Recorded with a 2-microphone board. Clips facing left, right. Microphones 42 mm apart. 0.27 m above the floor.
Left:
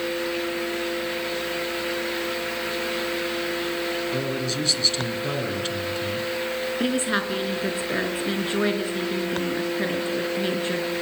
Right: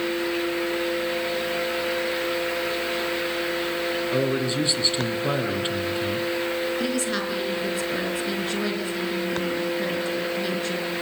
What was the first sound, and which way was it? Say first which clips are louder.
A man speaking: right 3 dB; 20° right (ahead or behind).